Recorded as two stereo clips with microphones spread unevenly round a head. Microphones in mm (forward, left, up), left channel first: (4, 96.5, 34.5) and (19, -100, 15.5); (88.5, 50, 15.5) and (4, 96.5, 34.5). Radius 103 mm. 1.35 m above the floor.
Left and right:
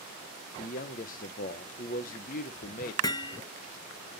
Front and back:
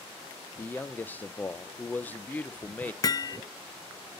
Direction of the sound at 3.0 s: 25° left.